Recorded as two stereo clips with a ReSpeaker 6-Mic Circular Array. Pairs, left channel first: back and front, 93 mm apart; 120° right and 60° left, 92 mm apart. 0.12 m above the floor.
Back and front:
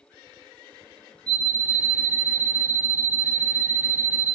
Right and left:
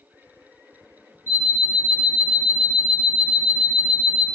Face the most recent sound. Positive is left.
turn(degrees=105)